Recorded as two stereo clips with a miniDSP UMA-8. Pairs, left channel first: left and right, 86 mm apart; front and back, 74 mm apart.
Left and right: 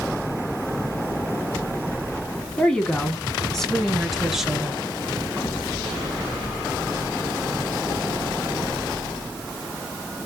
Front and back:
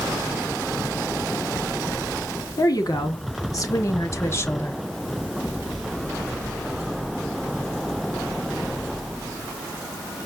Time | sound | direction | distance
2.6 | a woman speaking | 10° left | 2 m